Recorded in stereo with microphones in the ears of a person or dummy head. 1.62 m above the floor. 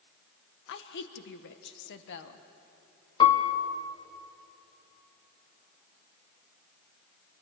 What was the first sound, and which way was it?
A woman speaking, 65° left (ahead or behind).